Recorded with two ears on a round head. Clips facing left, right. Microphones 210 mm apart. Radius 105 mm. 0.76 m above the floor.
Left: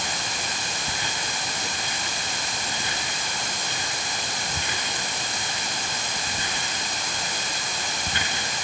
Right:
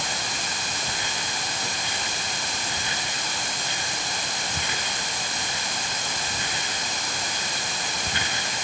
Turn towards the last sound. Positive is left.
No sound to turn to.